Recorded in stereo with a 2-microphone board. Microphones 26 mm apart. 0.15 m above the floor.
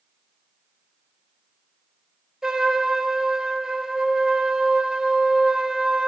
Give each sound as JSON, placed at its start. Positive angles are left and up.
{"t": 2.4, "sound": "a trumpet", "side_deg": -20, "distance_m": 1.0}